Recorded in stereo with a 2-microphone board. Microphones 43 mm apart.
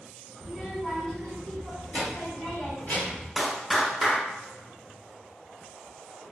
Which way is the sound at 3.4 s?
Centre (ahead or behind).